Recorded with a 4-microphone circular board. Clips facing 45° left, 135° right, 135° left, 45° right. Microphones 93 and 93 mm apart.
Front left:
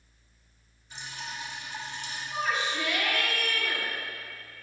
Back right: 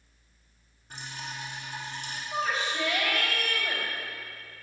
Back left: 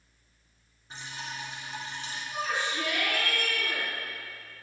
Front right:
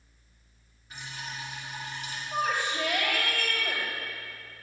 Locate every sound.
0.9 s dripping: 165° right, 3 m
2.3 s a shout: 80° right, 5 m